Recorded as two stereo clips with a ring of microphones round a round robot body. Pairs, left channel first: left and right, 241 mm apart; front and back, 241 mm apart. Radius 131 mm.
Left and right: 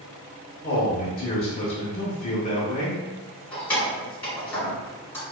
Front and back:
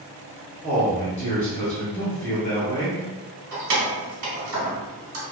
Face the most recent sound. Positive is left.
turn(degrees=175)